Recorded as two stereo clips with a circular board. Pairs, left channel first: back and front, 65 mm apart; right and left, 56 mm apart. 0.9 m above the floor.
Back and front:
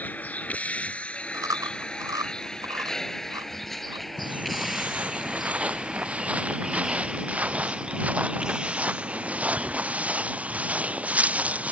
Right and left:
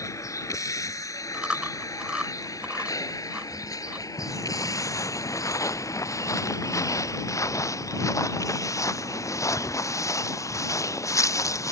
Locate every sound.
0.0 s a vehicle: 115° right; by 11.7 s 70° right
1.3 s chewing: 15° left
4.2 s footsteps: 70° right